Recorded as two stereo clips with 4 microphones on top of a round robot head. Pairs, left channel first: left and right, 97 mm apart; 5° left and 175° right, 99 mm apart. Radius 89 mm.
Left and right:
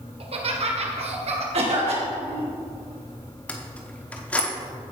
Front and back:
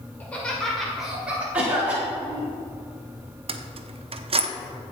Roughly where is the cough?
Right.